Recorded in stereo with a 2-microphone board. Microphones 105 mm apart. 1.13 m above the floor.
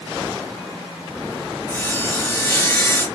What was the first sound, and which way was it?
Sawing, 20° left (ahead or behind).